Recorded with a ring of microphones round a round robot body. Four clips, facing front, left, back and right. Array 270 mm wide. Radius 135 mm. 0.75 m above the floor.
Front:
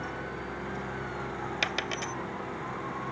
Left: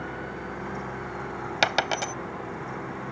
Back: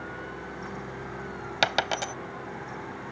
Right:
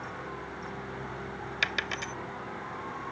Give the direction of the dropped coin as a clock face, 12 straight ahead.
8 o'clock.